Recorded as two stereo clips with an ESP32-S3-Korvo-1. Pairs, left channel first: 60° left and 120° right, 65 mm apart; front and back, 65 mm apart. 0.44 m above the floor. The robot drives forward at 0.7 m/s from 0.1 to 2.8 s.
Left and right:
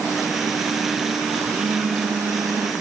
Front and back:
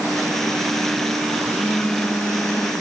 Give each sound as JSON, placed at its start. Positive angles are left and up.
{"t": 1.4, "sound": "a phone buzzing", "azimuth_deg": -70}